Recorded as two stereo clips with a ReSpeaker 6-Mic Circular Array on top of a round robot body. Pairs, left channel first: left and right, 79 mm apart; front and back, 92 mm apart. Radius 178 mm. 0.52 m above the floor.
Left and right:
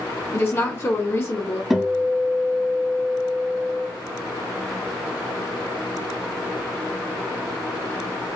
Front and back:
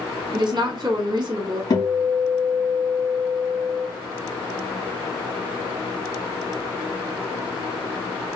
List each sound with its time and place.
0.3 s a woman speaking: 140° left, 1.3 m
1.7 s a guitar: 5° right, 1.4 m